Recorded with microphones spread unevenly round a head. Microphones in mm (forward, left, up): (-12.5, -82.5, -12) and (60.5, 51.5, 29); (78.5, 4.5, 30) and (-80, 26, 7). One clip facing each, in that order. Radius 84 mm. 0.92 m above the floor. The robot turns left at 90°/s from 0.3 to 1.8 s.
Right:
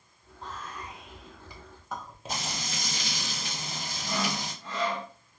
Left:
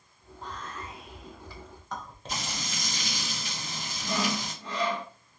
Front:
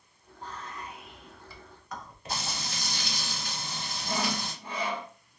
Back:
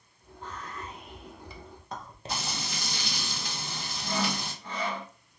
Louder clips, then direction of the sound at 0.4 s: Left 1 dB, back 1 dB; 45° right.